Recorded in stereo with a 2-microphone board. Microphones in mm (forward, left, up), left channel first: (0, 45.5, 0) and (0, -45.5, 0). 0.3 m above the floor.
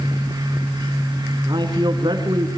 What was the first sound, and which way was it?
A man speaking, 55° right (ahead or behind).